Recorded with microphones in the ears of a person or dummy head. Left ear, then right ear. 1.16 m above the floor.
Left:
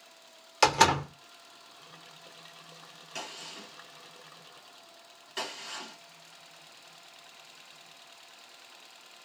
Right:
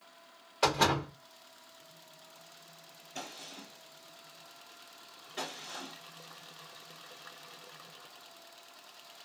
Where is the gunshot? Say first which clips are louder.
Left 3 dB; 55° left (ahead or behind), 2.5 m.